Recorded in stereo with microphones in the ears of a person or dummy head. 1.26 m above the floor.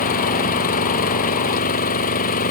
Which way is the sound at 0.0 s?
45° left (ahead or behind).